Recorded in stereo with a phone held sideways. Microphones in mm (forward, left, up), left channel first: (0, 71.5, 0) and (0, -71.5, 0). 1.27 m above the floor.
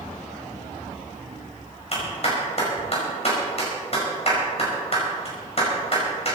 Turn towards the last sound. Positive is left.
turn(degrees=45)  # may be behind; listen again after turning